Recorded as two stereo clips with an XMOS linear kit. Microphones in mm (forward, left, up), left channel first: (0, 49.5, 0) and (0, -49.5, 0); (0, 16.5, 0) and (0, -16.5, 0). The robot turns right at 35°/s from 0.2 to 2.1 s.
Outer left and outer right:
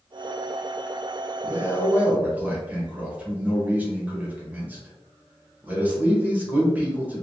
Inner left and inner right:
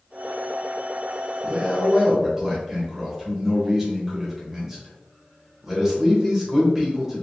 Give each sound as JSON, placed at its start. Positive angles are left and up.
{"t": 1.4, "sound": "a man speaking", "side_deg": -25, "distance_m": 1.1}